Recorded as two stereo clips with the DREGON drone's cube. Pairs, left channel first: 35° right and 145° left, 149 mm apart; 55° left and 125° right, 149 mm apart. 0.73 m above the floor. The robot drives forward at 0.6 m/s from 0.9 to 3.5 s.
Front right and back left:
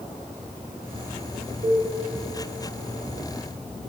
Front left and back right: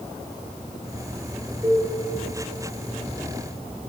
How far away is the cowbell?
About 1.0 m.